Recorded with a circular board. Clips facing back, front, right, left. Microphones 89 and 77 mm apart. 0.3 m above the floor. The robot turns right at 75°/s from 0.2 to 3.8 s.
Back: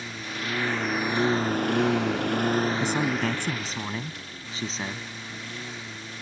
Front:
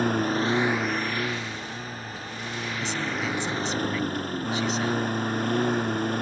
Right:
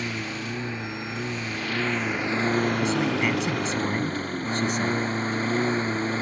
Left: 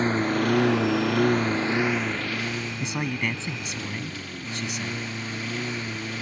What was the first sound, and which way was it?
A lawn mower, 35° left.